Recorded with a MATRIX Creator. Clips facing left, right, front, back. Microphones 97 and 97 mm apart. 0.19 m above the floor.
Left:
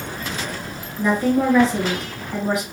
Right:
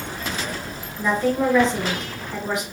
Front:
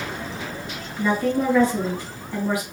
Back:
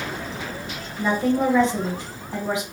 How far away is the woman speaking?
About 1.5 m.